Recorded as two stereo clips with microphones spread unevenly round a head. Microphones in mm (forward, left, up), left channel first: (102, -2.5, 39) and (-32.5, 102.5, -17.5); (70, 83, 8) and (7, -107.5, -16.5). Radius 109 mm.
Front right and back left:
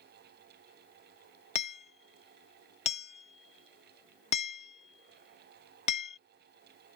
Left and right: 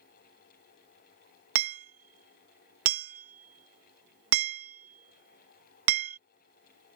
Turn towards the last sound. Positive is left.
turn(degrees=-100)